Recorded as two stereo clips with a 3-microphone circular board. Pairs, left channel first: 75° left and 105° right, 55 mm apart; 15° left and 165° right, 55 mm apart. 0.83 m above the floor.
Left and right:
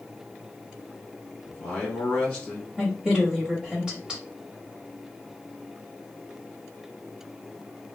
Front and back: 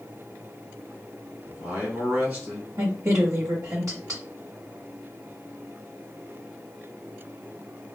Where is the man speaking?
150° left, 1.4 m.